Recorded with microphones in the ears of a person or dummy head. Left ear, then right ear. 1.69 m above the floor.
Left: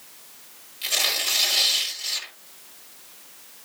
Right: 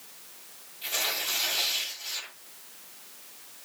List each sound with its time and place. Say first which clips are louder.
0.8 s tearing paper: left 7 dB; 45° left (ahead or behind), 6 m